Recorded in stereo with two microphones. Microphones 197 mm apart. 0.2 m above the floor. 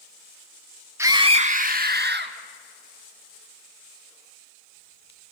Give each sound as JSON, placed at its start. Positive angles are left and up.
{"t": 1.0, "sound": "a scream", "side_deg": -15, "distance_m": 1.3}